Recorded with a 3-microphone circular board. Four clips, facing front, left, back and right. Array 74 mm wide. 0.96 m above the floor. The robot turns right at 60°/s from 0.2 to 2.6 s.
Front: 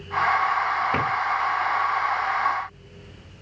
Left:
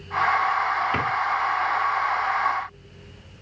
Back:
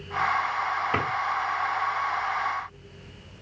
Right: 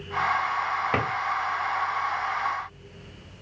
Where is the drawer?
85° right, 4.5 m; by 1.1 s 80° right, 4.5 m.